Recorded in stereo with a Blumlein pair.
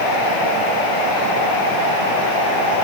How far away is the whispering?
I don't hear whispering.